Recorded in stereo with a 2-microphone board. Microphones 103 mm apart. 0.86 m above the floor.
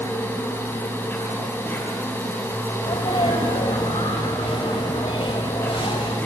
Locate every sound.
0.0 s an insect: 20° left (ahead or behind), 6 m
2.8 s a sneeze: 65° left (ahead or behind), 4 m